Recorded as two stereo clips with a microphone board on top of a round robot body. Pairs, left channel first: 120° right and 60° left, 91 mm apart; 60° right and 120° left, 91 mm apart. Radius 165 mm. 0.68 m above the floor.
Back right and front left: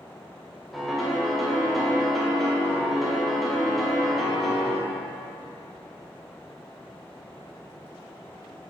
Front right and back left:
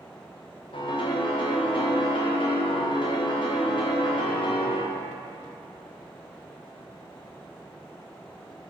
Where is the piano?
30° right, 1.1 m.